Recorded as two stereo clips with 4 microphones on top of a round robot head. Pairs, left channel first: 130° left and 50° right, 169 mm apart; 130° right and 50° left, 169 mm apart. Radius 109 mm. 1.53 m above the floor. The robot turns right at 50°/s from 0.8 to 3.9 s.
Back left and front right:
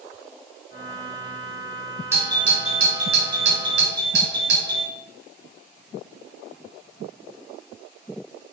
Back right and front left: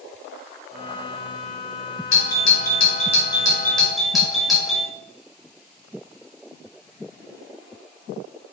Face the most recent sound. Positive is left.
turn(degrees=-35)